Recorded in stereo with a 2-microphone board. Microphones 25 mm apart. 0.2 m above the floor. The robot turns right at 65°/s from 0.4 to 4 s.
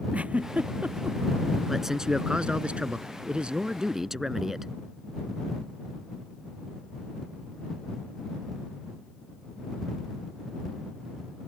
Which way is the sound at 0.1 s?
70° right (ahead or behind).